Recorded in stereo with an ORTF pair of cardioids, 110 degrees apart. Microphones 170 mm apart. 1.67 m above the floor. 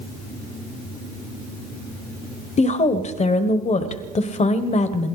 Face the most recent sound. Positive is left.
turn(degrees=40)